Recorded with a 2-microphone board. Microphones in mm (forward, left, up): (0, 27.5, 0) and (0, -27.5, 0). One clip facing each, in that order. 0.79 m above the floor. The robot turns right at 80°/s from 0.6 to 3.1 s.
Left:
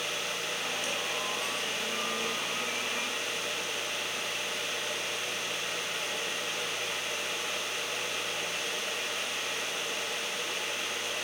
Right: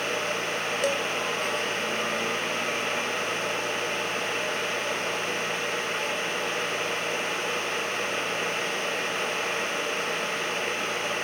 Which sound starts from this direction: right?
Dishes clattering, at 0.8 s.